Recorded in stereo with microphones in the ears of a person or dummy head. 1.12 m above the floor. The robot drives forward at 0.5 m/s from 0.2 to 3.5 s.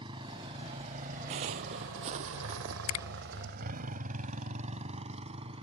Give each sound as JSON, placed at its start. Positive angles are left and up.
{"t": 0.0, "sound": "a motorcycle", "side_deg": -30}
{"t": 1.3, "sound": "footsteps", "side_deg": -30}
{"t": 2.9, "sound": "a finger snap", "side_deg": 75}